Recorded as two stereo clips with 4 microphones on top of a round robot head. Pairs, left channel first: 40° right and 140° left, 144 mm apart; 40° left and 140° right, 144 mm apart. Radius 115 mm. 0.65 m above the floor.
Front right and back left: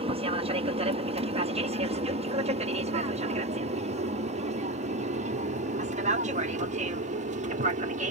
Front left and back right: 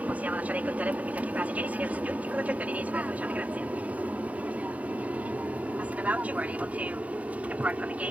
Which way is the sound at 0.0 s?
145° left.